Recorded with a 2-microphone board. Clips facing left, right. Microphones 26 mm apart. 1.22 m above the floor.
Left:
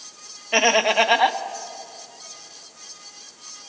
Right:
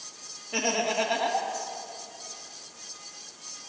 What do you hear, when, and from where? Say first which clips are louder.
0.5 s laughter: left 10 dB; 65° left (ahead or behind), 1.7 m